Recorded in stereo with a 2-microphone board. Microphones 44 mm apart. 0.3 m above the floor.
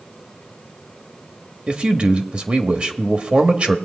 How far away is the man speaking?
About 1.0 m.